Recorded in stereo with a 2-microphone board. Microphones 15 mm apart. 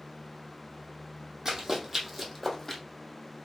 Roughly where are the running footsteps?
Right.